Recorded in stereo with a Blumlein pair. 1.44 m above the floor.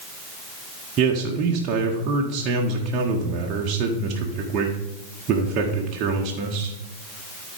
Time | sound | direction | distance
1.0 | a man speaking | 30° right | 1.5 m